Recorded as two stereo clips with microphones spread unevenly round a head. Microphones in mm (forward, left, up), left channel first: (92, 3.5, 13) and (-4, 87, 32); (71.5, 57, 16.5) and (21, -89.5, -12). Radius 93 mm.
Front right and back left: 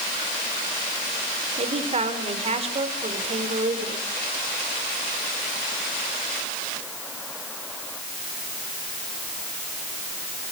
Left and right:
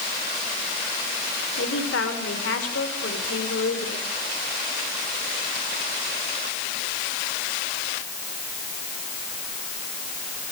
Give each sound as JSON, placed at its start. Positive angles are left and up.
{"t": 1.6, "sound": "a man speaking", "azimuth_deg": 100, "distance_m": 5.0}